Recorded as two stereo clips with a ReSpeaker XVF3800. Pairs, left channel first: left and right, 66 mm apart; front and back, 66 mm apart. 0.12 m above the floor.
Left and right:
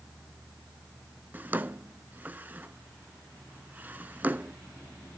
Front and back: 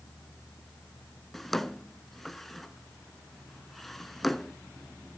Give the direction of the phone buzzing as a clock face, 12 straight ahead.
I don't hear a phone buzzing.